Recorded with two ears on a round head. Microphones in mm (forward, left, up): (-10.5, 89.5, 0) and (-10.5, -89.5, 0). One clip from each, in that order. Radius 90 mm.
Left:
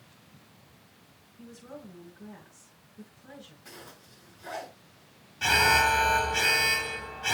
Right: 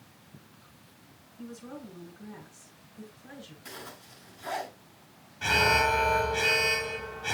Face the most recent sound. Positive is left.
turn(degrees=35)  # may be behind; listen again after turning